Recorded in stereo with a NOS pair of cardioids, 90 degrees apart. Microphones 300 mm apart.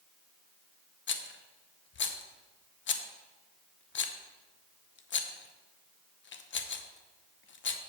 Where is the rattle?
40° left, 0.8 m.